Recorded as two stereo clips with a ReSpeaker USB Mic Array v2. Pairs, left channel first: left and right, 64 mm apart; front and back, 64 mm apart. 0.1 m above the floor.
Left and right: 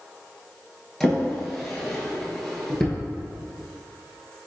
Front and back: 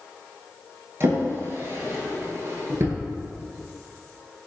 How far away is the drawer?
About 1.0 m.